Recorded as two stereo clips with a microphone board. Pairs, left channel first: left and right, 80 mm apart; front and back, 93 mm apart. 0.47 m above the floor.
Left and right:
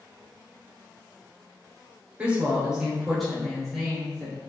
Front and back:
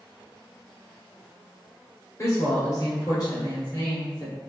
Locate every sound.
2.2 s a woman speaking: 30° right, 1.4 m; by 4.4 s 15° left, 2.0 m